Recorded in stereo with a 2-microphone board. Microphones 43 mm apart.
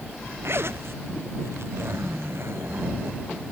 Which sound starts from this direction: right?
A zipper, at 0.4 s.